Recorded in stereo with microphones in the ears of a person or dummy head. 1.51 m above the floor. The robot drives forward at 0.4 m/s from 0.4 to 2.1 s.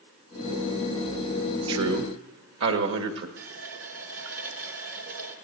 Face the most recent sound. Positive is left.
turn(degrees=-55)  # may be behind; listen again after turning